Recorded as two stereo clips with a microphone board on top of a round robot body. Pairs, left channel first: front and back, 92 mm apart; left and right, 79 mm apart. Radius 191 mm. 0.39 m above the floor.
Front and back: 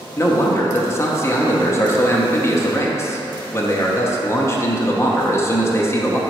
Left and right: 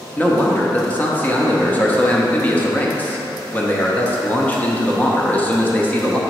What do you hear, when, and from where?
0.2 s a man speaking: 35° left, 1.1 m